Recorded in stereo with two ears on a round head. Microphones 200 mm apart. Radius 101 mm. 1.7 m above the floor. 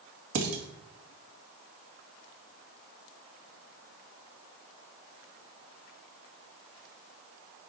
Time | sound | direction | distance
0.3 | dishes clattering | 60° right (ahead or behind) | 2 m